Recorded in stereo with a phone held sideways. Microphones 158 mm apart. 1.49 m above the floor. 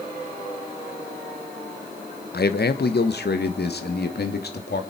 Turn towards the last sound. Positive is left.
turn(degrees=75)  # may be behind; listen again after turning